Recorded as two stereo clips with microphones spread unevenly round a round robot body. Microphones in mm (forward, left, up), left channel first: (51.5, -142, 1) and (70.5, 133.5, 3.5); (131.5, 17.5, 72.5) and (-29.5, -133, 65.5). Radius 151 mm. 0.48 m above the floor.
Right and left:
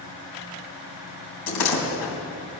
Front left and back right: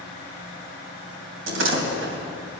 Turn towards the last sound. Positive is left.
turn(degrees=-115)